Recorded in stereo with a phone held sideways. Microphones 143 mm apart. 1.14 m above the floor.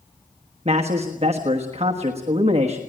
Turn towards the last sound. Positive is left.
turn(degrees=-45)  # may be behind; listen again after turning